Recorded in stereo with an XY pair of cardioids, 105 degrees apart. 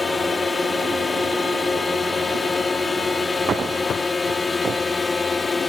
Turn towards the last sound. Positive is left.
turn(degrees=20)